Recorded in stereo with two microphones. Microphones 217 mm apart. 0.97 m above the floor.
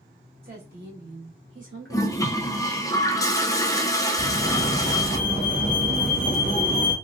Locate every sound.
0.4 s a woman speaking: 45° right (ahead or behind), 1.9 m; by 2.5 s 70° right (ahead or behind), 2 m
1.9 s a toilet flushing: 15° left (ahead or behind), 0.5 m
4.2 s a fire alarm: 35° left (ahead or behind), 1.5 m